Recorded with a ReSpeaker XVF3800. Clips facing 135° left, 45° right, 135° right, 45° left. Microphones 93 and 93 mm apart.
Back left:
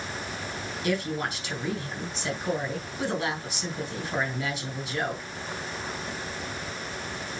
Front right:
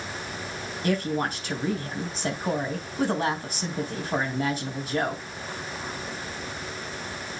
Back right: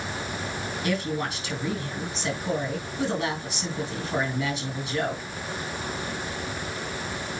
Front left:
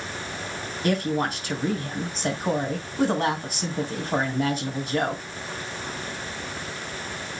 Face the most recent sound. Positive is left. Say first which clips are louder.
# front right 3 dB, front left 5 dB
turn(degrees=0)